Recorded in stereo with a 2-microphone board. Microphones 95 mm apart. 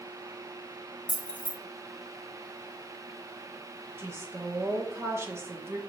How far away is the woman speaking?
About 0.8 m.